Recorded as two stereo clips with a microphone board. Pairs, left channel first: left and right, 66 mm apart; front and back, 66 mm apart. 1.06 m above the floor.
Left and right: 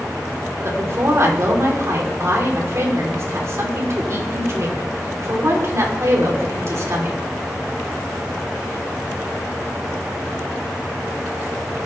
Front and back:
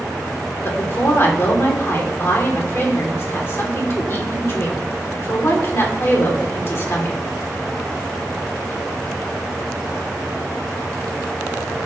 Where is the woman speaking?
50° right, 3 m.